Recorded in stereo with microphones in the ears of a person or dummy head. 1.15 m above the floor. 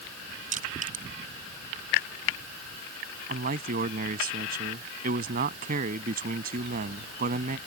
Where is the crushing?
40° right (ahead or behind).